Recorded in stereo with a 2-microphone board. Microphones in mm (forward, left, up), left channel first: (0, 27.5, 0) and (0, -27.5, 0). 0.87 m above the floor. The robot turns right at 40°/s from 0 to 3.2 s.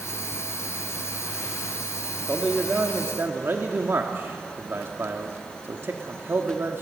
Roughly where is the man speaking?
Behind.